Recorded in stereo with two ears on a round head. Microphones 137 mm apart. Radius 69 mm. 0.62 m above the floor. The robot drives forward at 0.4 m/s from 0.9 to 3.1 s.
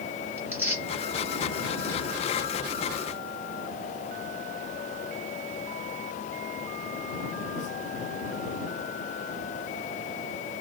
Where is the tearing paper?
15° right (ahead or behind), 1.7 m.